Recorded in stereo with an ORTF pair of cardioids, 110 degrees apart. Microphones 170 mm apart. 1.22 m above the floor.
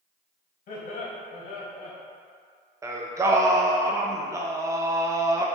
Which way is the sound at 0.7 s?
55° left.